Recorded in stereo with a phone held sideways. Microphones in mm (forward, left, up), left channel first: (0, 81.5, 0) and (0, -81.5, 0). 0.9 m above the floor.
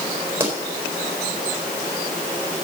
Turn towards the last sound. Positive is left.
turn(degrees=-15)  # may be behind; listen again after turning